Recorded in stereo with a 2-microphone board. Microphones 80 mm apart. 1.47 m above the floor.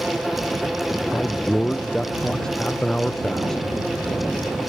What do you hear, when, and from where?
1.1 s a man speaking: 5° left (ahead or behind)